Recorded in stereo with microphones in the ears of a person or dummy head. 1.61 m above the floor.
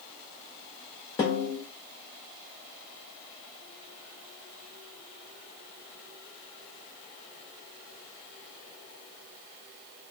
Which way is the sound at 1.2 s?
15° left (ahead or behind).